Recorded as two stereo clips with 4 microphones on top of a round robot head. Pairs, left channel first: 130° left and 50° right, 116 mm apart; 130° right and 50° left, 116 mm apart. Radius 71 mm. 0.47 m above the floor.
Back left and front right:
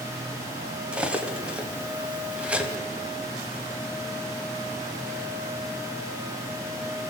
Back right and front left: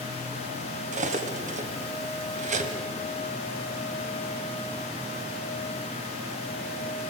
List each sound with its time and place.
0.9 s cutlery clinking: 30° left, 1.7 m